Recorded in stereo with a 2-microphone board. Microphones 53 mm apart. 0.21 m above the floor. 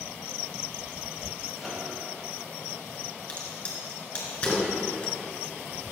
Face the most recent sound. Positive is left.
turn(degrees=25)  # may be behind; listen again after turning